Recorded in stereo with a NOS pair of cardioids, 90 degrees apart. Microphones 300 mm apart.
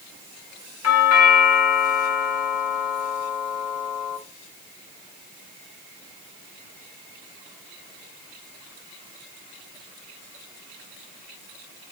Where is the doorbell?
55° left, 3 m.